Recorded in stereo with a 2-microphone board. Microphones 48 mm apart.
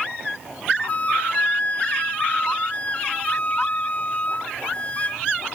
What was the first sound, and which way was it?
A flute, 30° left (ahead or behind).